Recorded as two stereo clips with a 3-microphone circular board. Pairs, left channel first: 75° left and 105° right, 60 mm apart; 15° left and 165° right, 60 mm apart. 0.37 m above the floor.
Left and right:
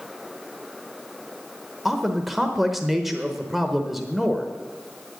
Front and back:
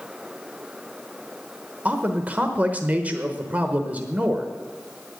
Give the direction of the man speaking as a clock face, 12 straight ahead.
6 o'clock.